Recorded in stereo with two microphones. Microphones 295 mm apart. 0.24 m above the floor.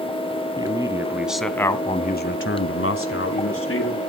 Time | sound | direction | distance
0.6 | a man speaking | 15° right (ahead or behind) | 3 m